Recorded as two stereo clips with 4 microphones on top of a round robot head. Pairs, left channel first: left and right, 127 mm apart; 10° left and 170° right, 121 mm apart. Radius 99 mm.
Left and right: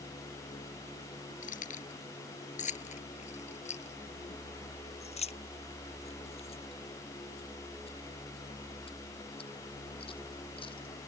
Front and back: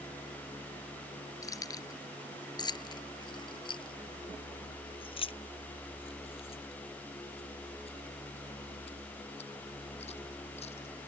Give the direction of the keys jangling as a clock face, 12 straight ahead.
10 o'clock.